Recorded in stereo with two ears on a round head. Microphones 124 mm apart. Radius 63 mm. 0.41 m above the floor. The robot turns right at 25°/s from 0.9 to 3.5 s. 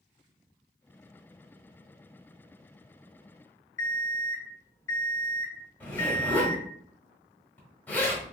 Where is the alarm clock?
20° left (ahead or behind), 0.8 m.